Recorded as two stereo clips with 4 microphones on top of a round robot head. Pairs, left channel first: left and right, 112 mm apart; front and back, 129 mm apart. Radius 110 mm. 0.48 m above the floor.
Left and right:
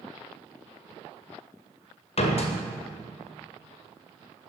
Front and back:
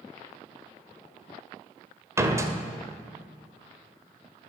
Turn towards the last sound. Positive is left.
turn(degrees=115)